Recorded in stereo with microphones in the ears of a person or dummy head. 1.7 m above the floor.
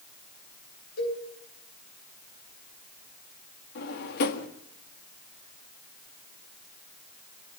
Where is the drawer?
55° left (ahead or behind), 1.7 m.